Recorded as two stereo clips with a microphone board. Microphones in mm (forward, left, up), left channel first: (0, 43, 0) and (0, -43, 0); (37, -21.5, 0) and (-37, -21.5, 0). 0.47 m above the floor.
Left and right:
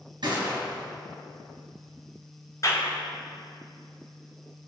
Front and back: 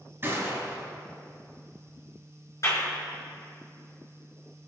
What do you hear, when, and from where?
0.2 s a gunshot: 120° right, 3 m
2.6 s a clap: 40° left, 4 m